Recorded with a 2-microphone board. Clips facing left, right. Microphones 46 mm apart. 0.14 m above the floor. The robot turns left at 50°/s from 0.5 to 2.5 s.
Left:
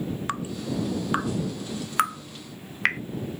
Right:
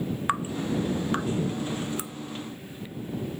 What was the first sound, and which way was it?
Dripping, 15° right (ahead or behind).